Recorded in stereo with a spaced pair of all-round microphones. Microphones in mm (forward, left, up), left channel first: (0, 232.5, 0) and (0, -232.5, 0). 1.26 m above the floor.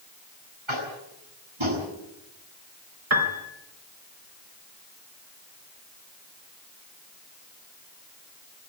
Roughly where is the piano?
Right.